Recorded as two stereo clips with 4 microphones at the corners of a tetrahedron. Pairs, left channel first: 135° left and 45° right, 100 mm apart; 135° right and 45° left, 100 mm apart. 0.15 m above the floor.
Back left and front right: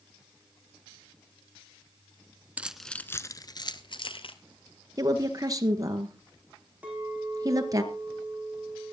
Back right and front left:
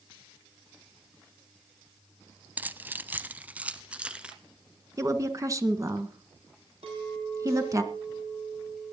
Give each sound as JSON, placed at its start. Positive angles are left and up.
{"t": 2.6, "sound": "keys jangling", "azimuth_deg": 0, "distance_m": 0.7}
{"t": 5.0, "sound": "a woman speaking", "azimuth_deg": -5, "distance_m": 2.0}
{"t": 6.8, "sound": "a clink", "azimuth_deg": 30, "distance_m": 5.5}